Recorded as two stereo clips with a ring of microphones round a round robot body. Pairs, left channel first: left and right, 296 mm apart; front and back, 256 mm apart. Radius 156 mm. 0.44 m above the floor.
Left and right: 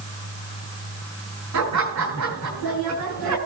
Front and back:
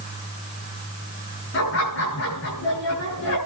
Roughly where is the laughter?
Ahead right.